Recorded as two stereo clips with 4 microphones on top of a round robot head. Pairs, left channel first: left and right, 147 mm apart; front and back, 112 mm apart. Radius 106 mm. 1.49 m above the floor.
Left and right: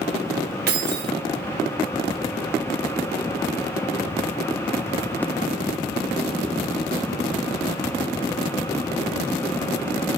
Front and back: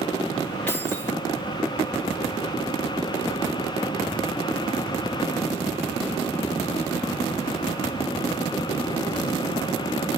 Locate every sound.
0.7 s keys jangling: 85° right, 1.2 m